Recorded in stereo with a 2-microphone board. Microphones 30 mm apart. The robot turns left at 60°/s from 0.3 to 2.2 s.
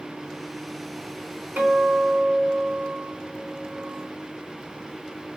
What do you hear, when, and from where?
1.6 s a guitar: 85° right, 3.5 m; by 4.1 s 120° right, 3.5 m